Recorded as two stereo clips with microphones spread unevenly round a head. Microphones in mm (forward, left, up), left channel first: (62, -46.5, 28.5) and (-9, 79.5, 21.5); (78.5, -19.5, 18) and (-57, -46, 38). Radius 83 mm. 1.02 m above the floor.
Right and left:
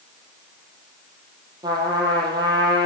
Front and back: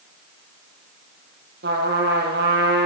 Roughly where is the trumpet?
Behind.